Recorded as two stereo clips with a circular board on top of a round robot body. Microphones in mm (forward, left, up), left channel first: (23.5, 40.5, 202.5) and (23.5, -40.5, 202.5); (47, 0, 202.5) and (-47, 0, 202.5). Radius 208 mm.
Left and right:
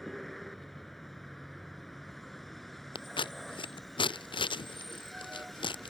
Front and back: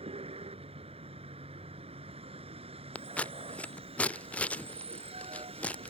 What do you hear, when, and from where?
0.0 s a vehicle: straight behind
3.0 s scissors: 75° left